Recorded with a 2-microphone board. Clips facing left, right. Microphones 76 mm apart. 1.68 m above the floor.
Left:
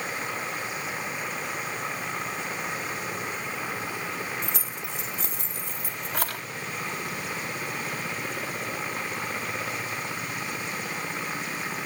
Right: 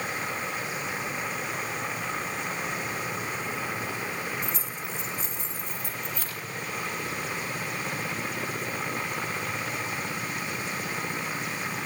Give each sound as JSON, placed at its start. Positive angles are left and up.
{"t": 4.4, "sound": "keys jangling", "side_deg": 75, "distance_m": 3.0}